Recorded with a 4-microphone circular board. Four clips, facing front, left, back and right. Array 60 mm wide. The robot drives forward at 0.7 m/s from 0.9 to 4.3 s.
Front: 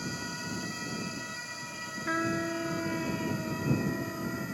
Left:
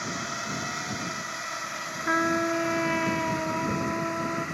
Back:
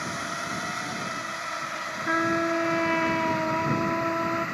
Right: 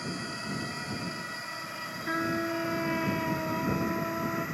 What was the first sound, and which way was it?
A drone, 150° left.